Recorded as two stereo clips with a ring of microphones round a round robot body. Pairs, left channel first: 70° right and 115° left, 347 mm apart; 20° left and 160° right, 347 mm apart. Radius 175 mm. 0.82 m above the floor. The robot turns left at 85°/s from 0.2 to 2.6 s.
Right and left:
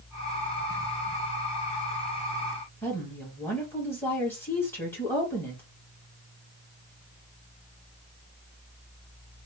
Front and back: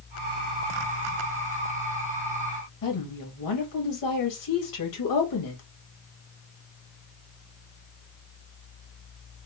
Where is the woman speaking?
15° left, 1.4 m.